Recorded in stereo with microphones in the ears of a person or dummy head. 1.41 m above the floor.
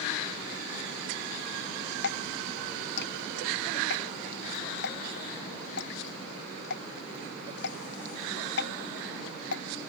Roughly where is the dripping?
Left.